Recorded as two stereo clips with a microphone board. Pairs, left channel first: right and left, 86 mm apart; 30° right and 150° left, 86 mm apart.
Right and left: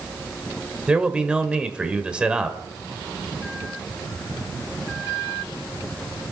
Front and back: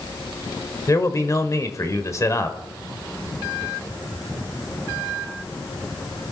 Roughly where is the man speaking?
Ahead.